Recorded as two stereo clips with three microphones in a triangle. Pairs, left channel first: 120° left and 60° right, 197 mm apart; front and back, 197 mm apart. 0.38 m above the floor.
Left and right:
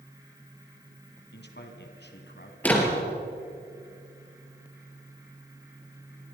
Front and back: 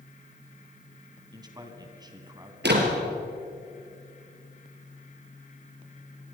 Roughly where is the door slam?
Behind.